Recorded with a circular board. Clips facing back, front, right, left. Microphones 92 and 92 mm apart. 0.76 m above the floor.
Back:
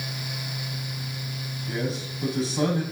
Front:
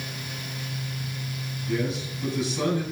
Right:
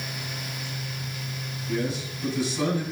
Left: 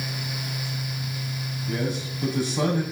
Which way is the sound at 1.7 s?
130° left.